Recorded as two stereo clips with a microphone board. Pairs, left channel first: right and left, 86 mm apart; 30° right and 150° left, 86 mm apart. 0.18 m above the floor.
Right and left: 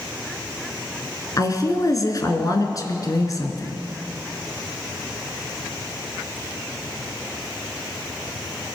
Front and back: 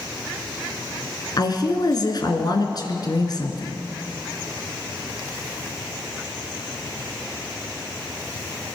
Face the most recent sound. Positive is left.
turn(degrees=-50)